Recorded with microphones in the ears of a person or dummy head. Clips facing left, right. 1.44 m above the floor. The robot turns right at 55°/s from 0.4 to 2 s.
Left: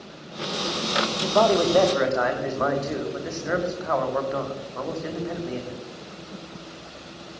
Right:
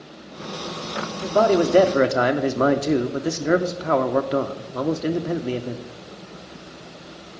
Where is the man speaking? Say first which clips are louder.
Right 2 dB; straight behind, 0.7 m; by 5.8 s 135° right, 0.7 m.